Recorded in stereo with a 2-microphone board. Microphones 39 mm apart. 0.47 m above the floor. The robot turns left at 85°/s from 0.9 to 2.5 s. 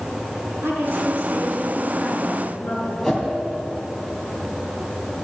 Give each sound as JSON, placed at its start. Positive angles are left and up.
{"t": 0.6, "sound": "a woman speaking", "azimuth_deg": -70, "distance_m": 6.0}
{"t": 3.0, "sound": "a whoosh", "side_deg": 10, "distance_m": 3.0}